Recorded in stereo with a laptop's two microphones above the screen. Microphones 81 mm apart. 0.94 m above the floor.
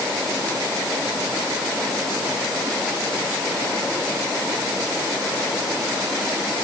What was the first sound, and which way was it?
Only background noise.